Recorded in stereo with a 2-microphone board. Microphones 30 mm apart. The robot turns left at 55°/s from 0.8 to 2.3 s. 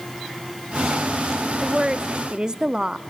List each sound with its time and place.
1.6 s a woman speaking: 20° right (ahead or behind), 0.6 m; by 3.0 s 30° right (ahead or behind), 0.6 m